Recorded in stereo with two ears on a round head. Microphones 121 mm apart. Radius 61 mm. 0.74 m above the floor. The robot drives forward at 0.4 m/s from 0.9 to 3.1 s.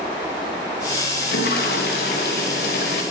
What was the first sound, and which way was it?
A toilet flushing, 75° left (ahead or behind).